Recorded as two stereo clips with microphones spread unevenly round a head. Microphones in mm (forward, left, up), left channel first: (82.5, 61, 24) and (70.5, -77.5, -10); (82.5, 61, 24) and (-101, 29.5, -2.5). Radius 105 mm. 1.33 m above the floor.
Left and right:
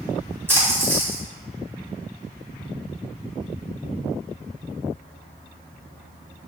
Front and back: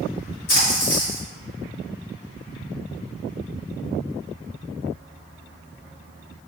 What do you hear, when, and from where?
0.5 s a splash: 15° right, 1.9 m